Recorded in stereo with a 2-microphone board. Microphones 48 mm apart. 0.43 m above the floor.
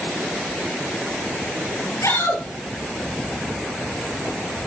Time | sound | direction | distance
2.0 | a shout | 80° left | 7.5 m